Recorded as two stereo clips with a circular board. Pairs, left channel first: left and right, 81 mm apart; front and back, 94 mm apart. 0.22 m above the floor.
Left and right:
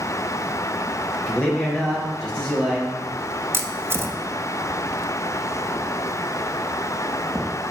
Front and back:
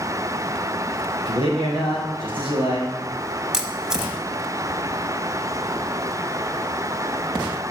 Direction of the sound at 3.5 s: 100° right.